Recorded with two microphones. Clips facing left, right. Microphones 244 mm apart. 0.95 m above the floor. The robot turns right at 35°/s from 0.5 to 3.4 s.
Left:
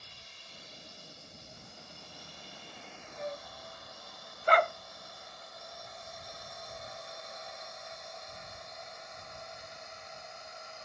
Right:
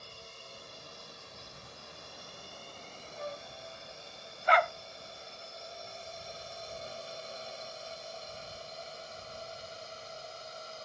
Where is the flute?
20° left (ahead or behind); by 3.5 s 30° left (ahead or behind).